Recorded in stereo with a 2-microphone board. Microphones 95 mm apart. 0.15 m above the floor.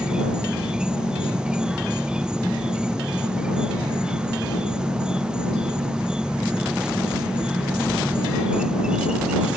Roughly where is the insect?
Centre.